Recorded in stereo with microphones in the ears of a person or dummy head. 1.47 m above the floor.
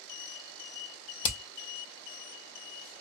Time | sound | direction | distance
1.2 | hammering | 60° left (ahead or behind) | 0.6 m